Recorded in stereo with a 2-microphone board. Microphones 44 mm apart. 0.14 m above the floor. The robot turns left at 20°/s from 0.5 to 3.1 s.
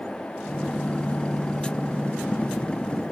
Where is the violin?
No violin in this recording.